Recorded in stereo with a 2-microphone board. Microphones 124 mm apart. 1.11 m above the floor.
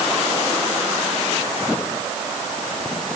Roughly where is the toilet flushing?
I don't hear a toilet flushing.